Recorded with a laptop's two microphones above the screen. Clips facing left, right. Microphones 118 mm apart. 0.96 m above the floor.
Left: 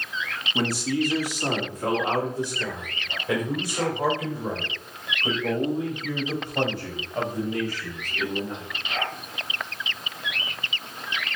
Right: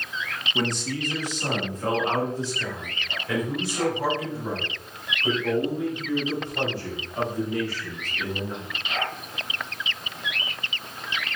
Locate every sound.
0.6 s a man speaking: 5° left (ahead or behind), 1.0 m; by 8.7 s 20° left (ahead or behind), 7 m